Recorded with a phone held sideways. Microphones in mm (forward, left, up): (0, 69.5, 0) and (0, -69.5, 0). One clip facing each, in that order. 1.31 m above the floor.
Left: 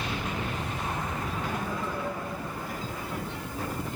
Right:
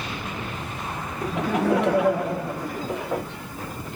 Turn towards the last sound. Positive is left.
turn(degrees=-75)  # may be behind; listen again after turning